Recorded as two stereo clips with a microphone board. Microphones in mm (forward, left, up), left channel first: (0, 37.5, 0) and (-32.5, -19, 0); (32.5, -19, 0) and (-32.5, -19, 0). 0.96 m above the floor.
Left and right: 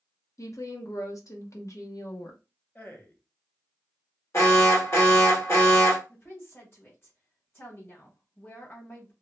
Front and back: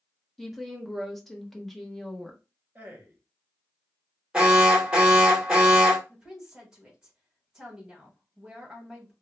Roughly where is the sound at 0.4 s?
Left.